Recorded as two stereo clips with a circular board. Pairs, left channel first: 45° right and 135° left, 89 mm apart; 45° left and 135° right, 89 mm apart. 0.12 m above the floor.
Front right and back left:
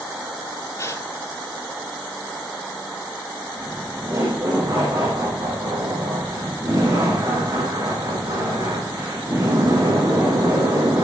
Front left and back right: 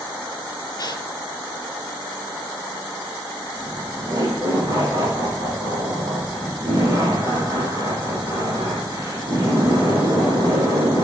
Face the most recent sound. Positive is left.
turn(degrees=170)